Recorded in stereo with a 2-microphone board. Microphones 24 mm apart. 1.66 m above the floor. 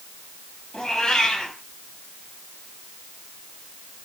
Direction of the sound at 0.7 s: 25° left (ahead or behind).